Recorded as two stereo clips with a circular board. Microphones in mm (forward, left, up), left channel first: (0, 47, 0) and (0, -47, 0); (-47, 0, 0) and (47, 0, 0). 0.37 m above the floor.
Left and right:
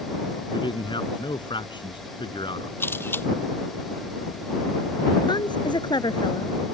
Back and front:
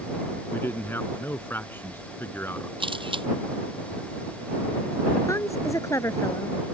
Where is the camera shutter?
25° left.